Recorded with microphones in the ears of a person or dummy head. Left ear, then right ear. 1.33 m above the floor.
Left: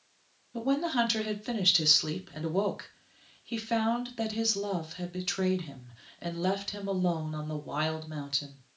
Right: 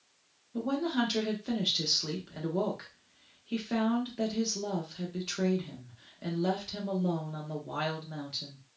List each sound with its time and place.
0.5 s a woman speaking: 25° left (ahead or behind), 0.7 m